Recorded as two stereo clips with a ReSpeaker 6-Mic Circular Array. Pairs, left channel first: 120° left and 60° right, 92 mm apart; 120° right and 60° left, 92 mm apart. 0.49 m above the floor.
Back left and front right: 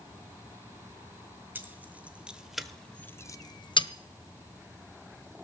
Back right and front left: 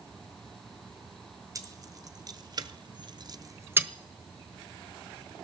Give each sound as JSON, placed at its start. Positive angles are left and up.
{"t": 1.6, "sound": "keys jangling", "azimuth_deg": 10, "distance_m": 1.6}